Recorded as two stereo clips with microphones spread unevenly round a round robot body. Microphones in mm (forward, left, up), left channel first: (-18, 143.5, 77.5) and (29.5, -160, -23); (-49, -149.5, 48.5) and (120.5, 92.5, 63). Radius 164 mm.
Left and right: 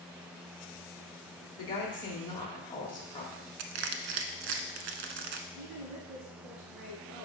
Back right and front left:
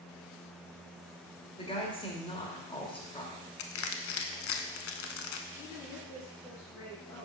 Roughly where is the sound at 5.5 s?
Ahead right.